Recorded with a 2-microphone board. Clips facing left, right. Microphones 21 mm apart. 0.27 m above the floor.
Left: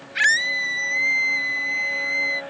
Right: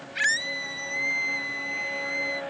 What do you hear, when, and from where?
0.1 s a scream: 25° left (ahead or behind)